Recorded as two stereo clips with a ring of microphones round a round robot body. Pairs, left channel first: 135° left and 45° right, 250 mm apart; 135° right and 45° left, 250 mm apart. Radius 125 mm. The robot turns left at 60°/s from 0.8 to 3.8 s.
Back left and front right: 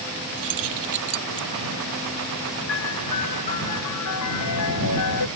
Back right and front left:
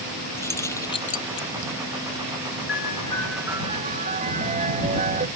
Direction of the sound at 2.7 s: 175° left.